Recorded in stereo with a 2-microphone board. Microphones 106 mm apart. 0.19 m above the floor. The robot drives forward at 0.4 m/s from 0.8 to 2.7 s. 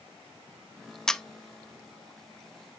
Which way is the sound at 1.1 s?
5° left (ahead or behind).